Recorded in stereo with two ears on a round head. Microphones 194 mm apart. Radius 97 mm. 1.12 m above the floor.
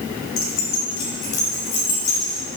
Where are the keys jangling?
65° left (ahead or behind), 2.0 m.